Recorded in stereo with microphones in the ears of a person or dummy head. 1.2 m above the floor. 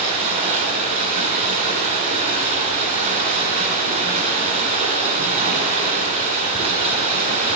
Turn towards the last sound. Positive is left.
turn(degrees=-45)  # may be behind; listen again after turning